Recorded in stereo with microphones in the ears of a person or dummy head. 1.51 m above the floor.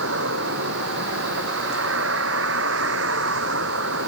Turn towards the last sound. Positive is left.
turn(degrees=-80)